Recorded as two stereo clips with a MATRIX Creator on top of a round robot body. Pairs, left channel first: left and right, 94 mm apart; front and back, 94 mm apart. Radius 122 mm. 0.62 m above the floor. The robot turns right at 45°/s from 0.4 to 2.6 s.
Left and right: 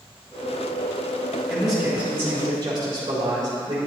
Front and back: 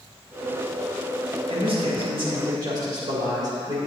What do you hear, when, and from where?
1.5 s a man speaking: 175° left, 3.5 m; by 3.8 s 135° right, 3.5 m